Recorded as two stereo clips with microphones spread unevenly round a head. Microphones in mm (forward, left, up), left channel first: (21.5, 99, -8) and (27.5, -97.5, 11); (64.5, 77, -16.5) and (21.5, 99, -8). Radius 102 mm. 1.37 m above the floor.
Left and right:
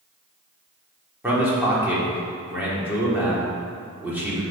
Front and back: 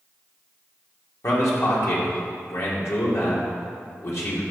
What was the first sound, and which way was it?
A man speaking, 10° right.